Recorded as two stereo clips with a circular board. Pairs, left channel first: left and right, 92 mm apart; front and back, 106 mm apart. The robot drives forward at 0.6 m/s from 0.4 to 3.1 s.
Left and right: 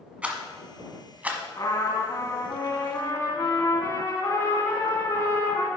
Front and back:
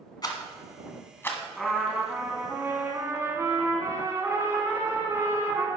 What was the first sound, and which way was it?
A rattle, 20° right.